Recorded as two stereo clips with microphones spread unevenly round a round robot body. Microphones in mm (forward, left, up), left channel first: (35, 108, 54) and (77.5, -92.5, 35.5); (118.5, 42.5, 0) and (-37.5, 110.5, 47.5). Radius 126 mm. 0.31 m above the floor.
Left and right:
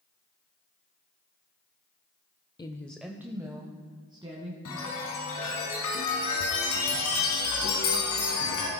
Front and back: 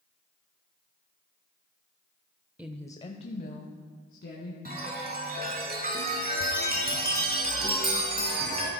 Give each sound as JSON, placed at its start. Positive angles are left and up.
{"t": 2.6, "sound": "a woman speaking", "azimuth_deg": 50, "distance_m": 0.9}
{"t": 4.7, "sound": "a chime", "azimuth_deg": 120, "distance_m": 3.5}